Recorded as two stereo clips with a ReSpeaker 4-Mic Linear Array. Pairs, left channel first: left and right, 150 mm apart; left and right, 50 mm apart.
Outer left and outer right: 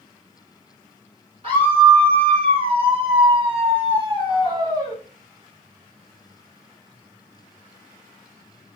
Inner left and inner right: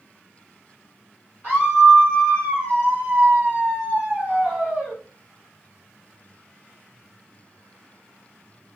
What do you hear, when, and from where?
1.4 s a scream: 40° right (ahead or behind), 4.5 m; by 5.0 s 25° right (ahead or behind), 1.7 m